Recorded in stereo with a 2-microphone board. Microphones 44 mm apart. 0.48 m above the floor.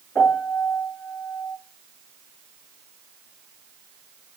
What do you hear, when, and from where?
0.1 s a piano: 75° left (ahead or behind), 6 m